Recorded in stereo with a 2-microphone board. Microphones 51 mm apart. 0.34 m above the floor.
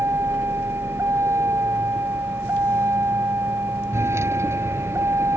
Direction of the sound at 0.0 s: 60° right (ahead or behind).